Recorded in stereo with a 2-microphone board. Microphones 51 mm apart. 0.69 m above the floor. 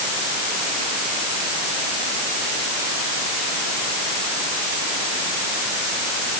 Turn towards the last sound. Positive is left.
No sound to turn to.